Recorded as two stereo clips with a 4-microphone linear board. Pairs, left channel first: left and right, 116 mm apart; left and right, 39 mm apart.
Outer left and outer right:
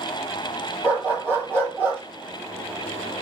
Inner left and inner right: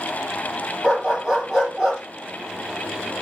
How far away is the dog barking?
About 2.5 m.